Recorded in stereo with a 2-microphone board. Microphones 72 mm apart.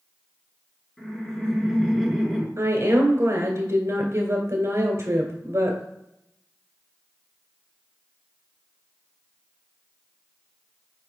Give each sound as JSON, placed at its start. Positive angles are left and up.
{"t": 1.0, "sound": "laughter", "side_deg": 10, "distance_m": 1.7}
{"t": 2.6, "sound": "a woman speaking", "side_deg": -40, "distance_m": 1.8}